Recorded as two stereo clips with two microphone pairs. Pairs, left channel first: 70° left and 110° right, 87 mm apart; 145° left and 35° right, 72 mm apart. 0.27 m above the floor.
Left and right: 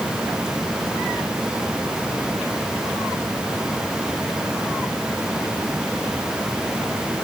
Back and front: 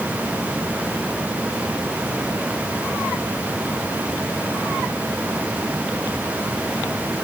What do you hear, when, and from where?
Only background noise.